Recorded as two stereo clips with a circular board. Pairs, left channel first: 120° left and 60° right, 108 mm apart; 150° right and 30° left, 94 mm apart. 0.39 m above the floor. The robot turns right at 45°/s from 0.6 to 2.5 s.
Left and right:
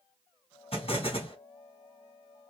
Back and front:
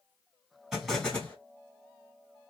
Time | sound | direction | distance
0.7 | an explosion | 115° left | 2.5 m